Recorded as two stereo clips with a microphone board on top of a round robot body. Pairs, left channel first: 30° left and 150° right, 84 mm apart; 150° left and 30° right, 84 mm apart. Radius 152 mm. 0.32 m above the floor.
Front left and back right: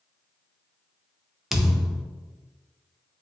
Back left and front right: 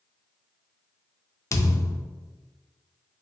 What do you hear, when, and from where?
1.5 s a thud: 125° left, 0.5 m